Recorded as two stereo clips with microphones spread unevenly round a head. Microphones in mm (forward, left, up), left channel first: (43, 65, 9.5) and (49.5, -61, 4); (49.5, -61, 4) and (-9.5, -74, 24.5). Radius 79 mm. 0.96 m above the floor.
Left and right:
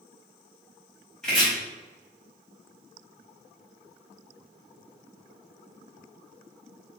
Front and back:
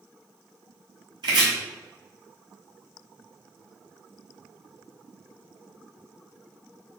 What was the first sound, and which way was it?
Chopping, straight behind.